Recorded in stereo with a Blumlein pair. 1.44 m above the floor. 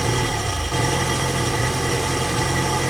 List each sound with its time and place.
0.0 s an engine running: 5° right